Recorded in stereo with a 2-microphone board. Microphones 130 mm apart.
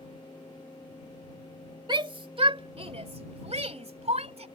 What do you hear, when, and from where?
1.9 s a shout: 35° right (ahead or behind); by 4.5 s 55° right (ahead or behind)